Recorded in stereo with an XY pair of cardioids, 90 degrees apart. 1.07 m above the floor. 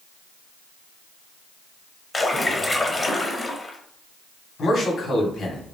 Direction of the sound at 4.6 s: 60° left.